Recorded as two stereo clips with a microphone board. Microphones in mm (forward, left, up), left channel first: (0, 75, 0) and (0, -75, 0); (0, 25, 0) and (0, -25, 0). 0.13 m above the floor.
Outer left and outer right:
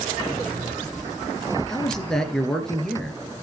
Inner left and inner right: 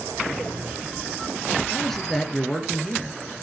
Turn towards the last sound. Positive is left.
turn(degrees=5)  # may be behind; listen again after turning